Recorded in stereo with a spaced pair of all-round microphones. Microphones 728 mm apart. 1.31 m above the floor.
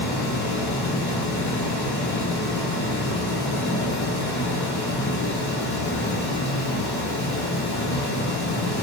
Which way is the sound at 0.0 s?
30° left (ahead or behind).